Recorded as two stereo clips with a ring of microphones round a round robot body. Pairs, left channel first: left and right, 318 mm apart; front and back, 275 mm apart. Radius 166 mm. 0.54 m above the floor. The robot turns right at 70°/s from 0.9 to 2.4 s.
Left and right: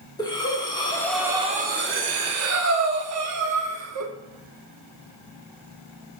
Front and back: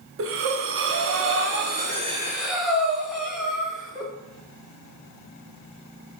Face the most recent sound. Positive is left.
turn(degrees=-90)